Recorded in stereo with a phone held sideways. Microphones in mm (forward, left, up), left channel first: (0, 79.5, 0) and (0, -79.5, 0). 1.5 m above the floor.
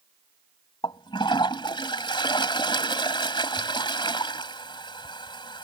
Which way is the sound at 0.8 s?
30° left (ahead or behind).